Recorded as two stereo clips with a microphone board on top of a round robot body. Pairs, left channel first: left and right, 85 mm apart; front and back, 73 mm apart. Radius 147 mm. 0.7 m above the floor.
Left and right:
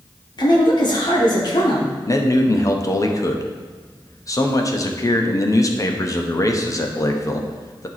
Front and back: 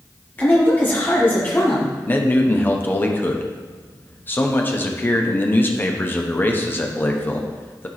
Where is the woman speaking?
65° left, 2.5 m.